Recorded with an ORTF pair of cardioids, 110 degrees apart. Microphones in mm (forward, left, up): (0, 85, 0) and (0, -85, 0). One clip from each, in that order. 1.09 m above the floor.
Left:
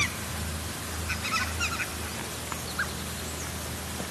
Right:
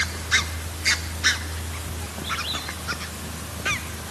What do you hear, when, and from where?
Only background noise.